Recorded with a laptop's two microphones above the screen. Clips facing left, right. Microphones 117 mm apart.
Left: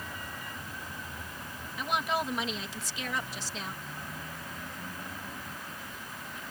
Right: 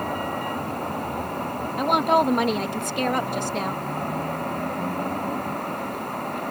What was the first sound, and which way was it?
A vehicle, 65° right (ahead or behind).